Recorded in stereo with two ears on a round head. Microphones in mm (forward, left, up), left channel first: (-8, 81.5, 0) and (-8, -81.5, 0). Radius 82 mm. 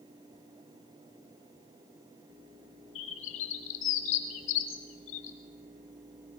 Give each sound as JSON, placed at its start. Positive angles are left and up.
{"t": 3.0, "sound": "a bird", "side_deg": 75, "distance_m": 1.1}